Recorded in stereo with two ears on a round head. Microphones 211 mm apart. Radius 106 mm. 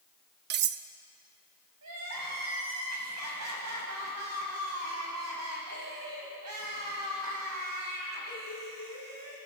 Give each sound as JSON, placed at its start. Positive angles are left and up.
{"t": 0.5, "sound": "cutlery clinking", "side_deg": -45, "distance_m": 0.8}
{"t": 1.8, "sound": "crying", "side_deg": -75, "distance_m": 6.0}